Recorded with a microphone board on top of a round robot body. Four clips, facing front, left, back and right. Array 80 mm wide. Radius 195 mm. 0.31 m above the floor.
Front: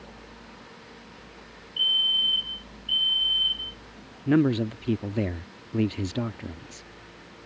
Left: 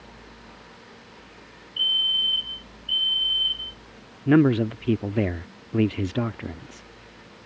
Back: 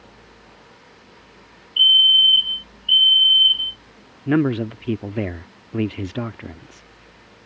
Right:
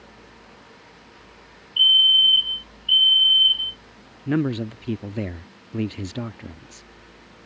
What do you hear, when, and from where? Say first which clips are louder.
1.8 s a fire alarm: right 8 dB, back 10 dB; 165° right
4.3 s a man speaking: left 5 dB, back 3 dB; 140° left